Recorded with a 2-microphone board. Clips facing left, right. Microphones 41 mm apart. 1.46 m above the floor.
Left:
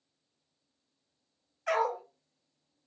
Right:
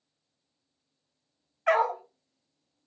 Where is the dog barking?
30° right (ahead or behind), 1.6 m.